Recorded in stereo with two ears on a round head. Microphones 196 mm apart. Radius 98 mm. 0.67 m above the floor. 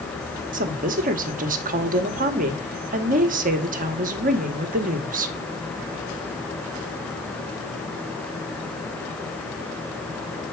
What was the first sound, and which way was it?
A woman speaking, 40° right (ahead or behind).